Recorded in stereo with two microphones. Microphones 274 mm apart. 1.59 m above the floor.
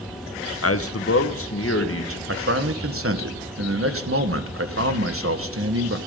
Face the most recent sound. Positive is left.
turn(degrees=-50)  # may be behind; listen again after turning